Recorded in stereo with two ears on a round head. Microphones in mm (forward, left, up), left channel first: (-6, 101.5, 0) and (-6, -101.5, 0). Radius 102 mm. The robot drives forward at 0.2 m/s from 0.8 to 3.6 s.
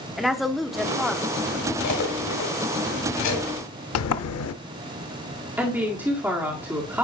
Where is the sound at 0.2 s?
Centre (ahead or behind), 1.0 m.